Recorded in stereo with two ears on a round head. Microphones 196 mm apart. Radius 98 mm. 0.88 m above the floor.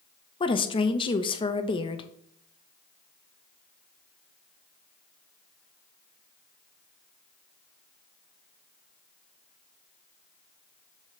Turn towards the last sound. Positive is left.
turn(degrees=25)  # may be behind; listen again after turning